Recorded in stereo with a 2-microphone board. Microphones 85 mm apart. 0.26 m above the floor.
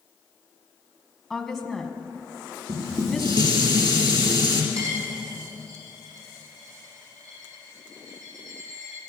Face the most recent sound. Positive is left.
turn(degrees=-40)  # may be behind; listen again after turning